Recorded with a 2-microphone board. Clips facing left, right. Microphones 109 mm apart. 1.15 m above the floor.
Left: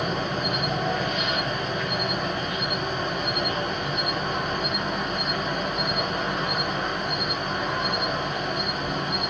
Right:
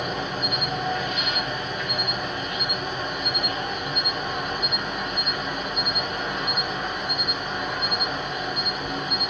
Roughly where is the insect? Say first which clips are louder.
Left 2 dB; centre.